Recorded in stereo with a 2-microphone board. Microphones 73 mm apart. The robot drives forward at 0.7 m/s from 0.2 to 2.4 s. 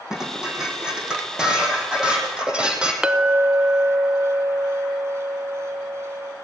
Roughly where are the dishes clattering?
Centre.